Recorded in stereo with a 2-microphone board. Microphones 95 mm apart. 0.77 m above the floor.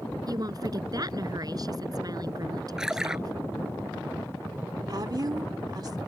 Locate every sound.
0.3 s a woman speaking: 45° right (ahead or behind)
2.8 s a splash: 5° right (ahead or behind)
4.9 s a woman speaking: 50° right (ahead or behind)